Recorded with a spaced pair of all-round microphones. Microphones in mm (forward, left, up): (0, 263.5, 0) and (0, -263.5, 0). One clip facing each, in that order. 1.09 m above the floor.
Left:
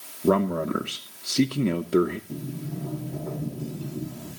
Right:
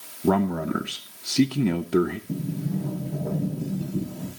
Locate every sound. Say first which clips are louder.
0.2 s a man speaking: even; 10° right (ahead or behind), 0.6 m
2.3 s a sliding door: right 5 dB; 70° right (ahead or behind), 5.5 m